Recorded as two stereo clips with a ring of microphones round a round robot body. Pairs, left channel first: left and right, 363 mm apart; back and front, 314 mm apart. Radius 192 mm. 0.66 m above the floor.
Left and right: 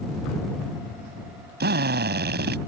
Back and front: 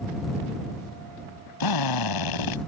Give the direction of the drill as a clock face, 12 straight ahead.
5 o'clock.